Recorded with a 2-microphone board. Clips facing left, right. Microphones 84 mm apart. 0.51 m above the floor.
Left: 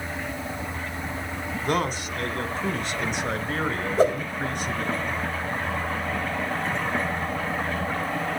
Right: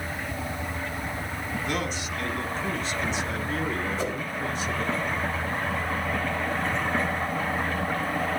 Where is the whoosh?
50° left (ahead or behind), 2.5 m.